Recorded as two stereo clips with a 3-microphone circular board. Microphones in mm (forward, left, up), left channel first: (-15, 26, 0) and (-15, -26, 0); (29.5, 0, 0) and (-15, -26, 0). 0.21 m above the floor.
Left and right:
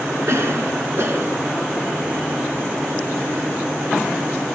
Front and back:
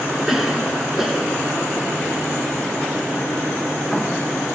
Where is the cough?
65° right, 3 m.